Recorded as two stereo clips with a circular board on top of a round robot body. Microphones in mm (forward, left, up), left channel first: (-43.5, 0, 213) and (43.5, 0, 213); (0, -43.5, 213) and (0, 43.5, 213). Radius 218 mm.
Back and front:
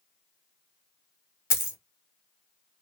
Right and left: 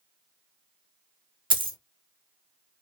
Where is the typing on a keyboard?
No typing on a keyboard in this recording.